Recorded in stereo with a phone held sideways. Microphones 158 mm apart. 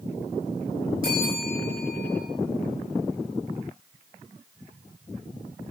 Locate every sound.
1.0 s a bell: 65° right (ahead or behind), 7.5 m